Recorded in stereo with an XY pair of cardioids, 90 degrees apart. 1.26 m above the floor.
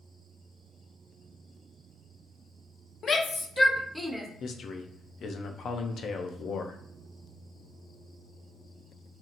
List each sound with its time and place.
3.0 s a shout: 55° left, 0.8 m; by 4.3 s 10° right, 0.9 m
4.4 s a man speaking: 60° left, 0.7 m